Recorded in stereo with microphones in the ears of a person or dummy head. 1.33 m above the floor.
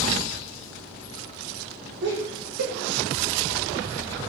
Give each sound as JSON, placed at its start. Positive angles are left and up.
{"t": 2.0, "sound": "laughter", "side_deg": -65, "distance_m": 0.9}